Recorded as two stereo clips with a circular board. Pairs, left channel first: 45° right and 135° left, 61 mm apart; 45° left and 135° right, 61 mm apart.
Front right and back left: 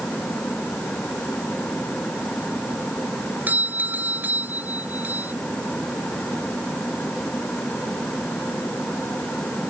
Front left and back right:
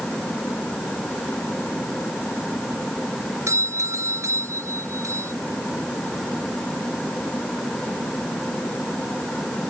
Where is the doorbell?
165° right.